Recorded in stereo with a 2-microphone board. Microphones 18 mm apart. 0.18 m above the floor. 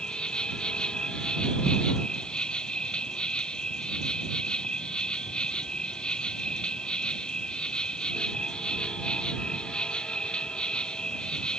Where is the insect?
65° left (ahead or behind).